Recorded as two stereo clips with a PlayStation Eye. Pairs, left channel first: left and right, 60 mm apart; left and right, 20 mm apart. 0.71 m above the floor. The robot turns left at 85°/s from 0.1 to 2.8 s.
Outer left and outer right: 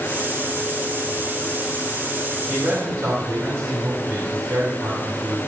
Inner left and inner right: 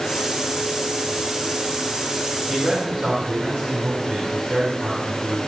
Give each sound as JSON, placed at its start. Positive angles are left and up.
{"t": 2.5, "sound": "a man speaking", "side_deg": -25, "distance_m": 7.5}